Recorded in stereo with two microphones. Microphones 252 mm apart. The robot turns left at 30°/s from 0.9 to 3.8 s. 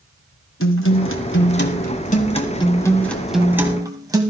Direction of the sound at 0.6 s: 70° left.